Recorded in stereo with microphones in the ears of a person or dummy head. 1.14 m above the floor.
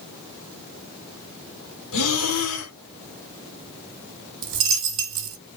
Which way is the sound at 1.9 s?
80° left.